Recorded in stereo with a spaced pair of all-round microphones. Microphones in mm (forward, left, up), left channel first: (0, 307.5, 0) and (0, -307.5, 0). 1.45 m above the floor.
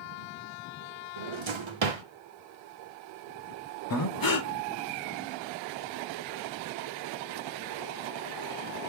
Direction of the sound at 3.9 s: 35° left (ahead or behind).